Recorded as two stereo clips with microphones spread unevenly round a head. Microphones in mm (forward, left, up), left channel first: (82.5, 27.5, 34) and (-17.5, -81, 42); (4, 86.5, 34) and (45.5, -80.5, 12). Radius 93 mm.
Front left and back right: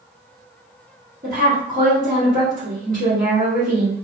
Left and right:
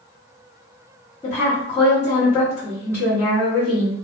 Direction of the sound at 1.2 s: Straight behind.